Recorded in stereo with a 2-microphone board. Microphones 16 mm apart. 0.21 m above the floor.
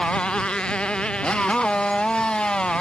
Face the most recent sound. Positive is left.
turn(degrees=65)  # may be behind; listen again after turning